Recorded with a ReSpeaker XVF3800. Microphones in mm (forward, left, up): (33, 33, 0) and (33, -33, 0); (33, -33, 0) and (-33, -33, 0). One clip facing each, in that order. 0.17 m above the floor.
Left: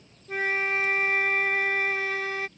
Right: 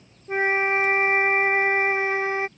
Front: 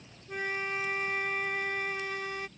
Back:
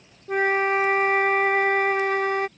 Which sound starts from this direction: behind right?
A flute, at 0.3 s.